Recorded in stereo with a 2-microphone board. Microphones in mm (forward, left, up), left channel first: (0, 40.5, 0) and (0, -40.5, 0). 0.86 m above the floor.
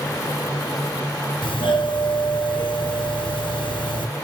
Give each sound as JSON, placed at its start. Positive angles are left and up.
{"t": 1.4, "sound": "a doorbell", "side_deg": 80, "distance_m": 5.5}